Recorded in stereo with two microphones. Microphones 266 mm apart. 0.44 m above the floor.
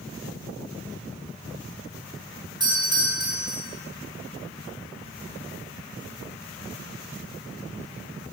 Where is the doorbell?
15° right (ahead or behind), 3.5 m.